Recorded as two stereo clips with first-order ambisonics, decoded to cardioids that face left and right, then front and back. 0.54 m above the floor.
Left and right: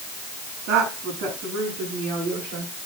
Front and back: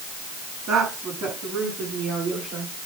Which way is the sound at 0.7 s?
130° right.